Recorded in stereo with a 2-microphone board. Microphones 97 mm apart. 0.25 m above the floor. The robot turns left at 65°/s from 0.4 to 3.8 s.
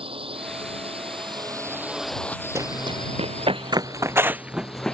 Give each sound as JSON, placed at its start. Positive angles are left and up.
{"t": 0.0, "sound": "a drone", "azimuth_deg": -70}
{"t": 2.5, "sound": "running footsteps", "side_deg": -30}